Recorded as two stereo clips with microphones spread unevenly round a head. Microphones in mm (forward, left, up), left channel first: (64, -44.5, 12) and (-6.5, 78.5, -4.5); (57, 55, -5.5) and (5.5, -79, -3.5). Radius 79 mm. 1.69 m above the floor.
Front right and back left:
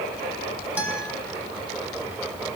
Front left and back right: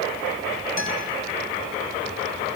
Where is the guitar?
40° left, 6.5 m.